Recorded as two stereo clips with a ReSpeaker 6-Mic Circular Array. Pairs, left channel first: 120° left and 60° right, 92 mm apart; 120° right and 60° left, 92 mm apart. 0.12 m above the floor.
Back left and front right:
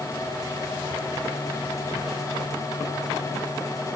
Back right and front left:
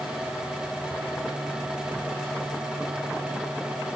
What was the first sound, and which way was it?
Only background noise.